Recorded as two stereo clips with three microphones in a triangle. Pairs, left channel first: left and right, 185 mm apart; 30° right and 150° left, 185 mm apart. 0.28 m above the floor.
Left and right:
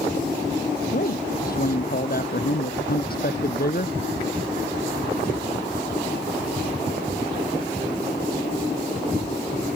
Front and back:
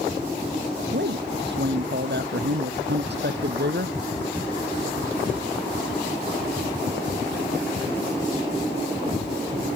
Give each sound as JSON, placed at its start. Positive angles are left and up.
{"t": 0.9, "sound": "a man speaking", "azimuth_deg": 125}